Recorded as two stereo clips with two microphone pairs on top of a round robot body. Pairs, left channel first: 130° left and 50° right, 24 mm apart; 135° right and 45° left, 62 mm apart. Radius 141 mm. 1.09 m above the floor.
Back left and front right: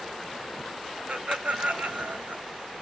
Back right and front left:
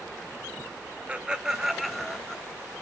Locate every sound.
1.1 s laughter: 25° right, 1.3 m; by 2.4 s 60° right, 1.5 m